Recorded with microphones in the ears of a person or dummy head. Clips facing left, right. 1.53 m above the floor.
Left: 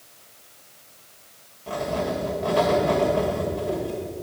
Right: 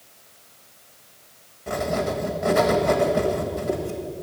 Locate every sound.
1.7 s writing: 25° right (ahead or behind), 1.5 m